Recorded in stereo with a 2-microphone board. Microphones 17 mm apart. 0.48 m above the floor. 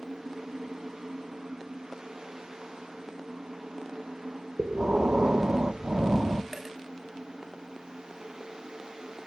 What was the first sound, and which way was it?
Breathing, 70° right (ahead or behind).